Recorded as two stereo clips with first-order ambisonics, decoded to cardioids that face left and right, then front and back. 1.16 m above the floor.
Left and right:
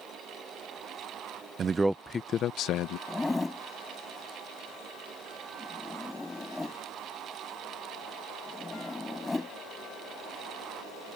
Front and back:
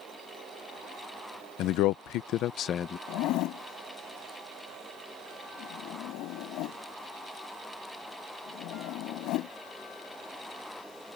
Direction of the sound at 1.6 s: 30° right.